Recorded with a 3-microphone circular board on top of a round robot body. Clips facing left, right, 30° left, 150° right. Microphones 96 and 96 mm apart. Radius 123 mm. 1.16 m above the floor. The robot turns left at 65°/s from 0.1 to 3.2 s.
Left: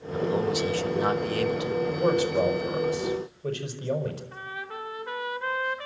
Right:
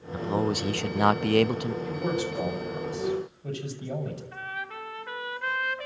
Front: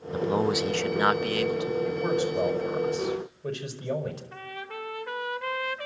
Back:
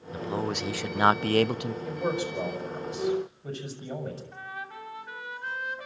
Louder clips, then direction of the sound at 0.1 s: Left 2 dB, front 6 dB; 25° right.